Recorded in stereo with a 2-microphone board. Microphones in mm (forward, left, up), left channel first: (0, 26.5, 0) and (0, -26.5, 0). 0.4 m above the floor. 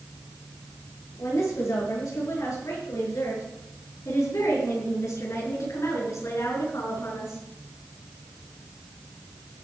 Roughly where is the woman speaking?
Left.